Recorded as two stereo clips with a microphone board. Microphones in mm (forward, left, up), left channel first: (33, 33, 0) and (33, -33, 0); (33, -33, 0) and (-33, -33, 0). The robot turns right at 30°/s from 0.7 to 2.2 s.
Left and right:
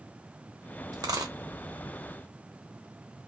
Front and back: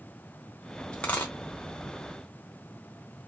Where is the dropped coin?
75° right, 0.7 m; by 1.3 s 60° right, 0.7 m.